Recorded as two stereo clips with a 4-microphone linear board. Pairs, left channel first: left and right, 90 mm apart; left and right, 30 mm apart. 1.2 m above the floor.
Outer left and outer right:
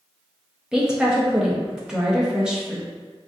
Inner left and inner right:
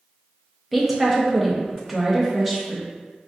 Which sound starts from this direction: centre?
A woman speaking, at 0.7 s.